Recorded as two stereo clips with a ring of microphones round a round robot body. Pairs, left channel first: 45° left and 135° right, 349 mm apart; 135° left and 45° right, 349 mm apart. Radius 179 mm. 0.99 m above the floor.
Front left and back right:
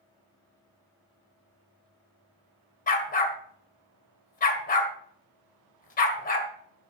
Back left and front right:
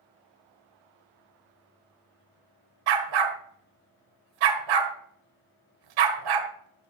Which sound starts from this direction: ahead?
A dog barking, at 2.9 s.